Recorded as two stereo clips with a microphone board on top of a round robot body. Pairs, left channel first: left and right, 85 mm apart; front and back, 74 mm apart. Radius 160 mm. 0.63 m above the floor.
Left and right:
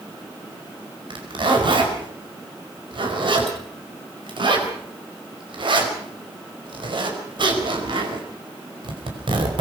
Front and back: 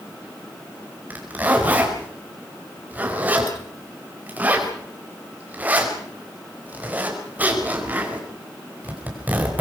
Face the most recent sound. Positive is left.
turn(degrees=-115)